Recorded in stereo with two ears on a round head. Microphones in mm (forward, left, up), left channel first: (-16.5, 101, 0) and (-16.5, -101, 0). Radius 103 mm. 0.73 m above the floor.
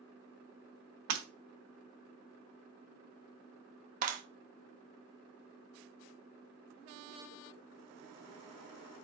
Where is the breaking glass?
80° right, 1.2 m.